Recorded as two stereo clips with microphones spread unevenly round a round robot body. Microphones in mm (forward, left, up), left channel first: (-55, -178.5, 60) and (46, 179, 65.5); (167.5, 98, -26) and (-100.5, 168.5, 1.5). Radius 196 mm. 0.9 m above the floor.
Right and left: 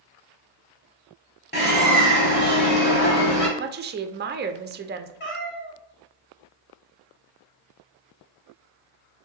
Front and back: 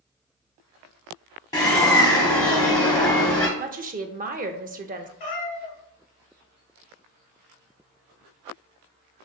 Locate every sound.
1.5 s a bird: 90° right, 0.7 m
3.6 s a woman speaking: 115° left, 0.5 m
5.2 s a cat meowing: 45° right, 1.4 m